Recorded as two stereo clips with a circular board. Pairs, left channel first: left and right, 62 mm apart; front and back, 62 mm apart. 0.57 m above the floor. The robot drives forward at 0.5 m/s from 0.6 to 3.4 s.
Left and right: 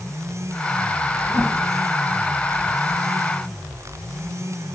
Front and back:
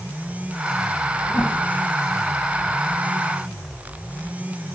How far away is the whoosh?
About 1.8 m.